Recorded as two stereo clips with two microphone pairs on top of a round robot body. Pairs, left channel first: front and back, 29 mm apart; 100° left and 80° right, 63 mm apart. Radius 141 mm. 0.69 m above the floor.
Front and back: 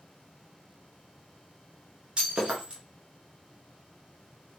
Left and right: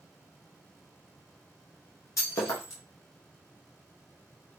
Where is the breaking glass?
135° left, 1.0 m.